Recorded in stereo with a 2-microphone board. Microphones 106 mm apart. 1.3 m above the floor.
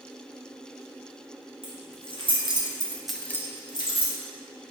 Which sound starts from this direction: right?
Keys jangling, at 1.6 s.